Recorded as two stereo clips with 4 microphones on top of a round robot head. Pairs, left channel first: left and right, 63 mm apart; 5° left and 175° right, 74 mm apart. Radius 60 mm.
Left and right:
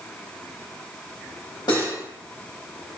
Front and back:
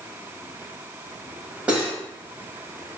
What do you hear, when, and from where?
1.7 s cutlery clinking: 110° left, 1.9 m